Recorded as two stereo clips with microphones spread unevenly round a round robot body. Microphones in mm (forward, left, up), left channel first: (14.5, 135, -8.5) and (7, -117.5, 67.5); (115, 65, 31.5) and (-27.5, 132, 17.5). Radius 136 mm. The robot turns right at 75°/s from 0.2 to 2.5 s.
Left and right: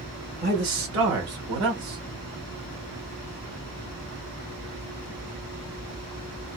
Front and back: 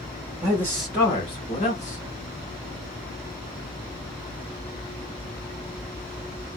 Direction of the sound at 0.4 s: 150° right.